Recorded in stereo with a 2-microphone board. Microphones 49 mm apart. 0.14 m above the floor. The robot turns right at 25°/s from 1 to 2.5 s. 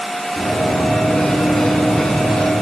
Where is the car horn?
No car horn in this recording.